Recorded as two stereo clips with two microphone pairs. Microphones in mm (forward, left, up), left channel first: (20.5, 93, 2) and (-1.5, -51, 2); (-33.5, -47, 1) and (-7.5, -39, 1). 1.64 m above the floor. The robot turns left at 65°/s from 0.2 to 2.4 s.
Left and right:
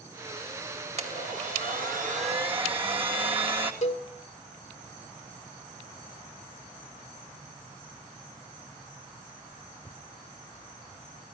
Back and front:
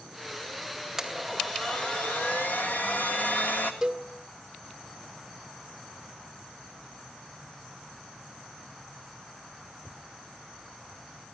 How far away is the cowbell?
About 1.7 m.